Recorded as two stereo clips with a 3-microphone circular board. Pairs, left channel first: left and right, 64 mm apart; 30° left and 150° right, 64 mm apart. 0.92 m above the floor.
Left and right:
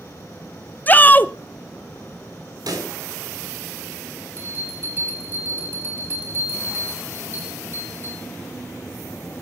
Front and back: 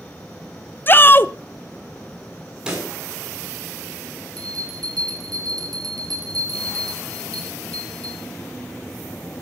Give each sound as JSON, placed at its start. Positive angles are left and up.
{"t": 0.9, "sound": "a shout", "azimuth_deg": 55, "distance_m": 0.6}
{"t": 2.7, "sound": "a pop", "azimuth_deg": -75, "distance_m": 7.0}
{"t": 4.4, "sound": "a bell", "azimuth_deg": -140, "distance_m": 5.5}